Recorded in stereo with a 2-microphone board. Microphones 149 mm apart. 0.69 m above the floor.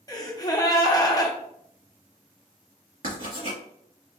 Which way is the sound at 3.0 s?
55° right (ahead or behind).